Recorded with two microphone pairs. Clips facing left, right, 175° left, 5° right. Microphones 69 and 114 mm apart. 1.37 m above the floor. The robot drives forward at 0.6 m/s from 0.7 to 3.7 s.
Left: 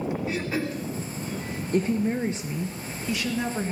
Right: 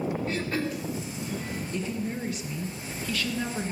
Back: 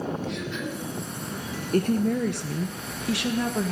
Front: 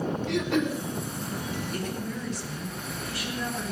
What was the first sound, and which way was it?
Throat clearing, 5° left.